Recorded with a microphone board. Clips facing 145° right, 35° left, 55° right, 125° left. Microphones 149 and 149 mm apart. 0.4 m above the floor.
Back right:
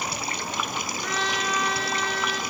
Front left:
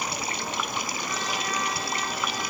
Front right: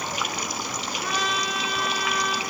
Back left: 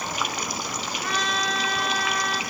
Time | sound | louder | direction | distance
1.0 | a trumpet | back right 3 dB, even | 140° right | 8 m